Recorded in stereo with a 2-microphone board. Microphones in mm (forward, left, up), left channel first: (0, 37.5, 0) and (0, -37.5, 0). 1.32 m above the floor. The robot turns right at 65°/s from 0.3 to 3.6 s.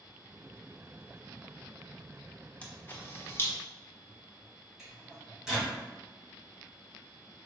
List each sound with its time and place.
2.6 s a camera shutter: 15° left (ahead or behind), 0.7 m; by 3.5 s 30° left (ahead or behind), 0.7 m
4.8 s a microwave: 5° right (ahead or behind), 1.9 m